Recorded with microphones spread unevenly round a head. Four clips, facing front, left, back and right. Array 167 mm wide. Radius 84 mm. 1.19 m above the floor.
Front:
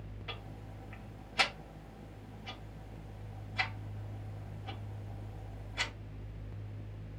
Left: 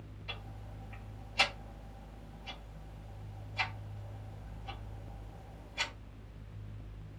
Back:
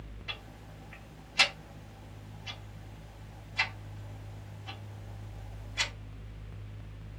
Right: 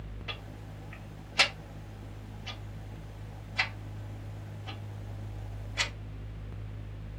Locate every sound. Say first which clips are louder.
0.3 s ticking: right 3 dB, even; 80° right, 1.2 m